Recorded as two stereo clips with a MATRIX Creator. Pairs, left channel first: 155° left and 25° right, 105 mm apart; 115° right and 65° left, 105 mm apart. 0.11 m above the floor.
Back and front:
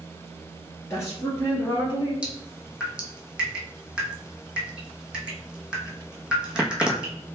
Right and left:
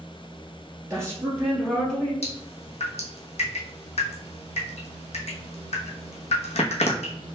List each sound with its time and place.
0.9 s a woman speaking: 110° left, 1.5 m; by 2.1 s 165° left, 1.6 m
2.2 s dripping: 105° right, 0.9 m